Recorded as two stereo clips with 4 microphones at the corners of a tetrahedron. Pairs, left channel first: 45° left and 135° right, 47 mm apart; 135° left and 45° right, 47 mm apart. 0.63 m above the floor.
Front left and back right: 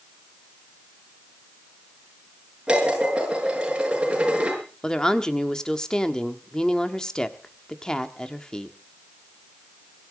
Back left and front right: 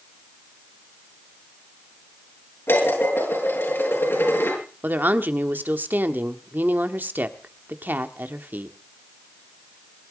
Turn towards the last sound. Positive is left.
turn(degrees=-25)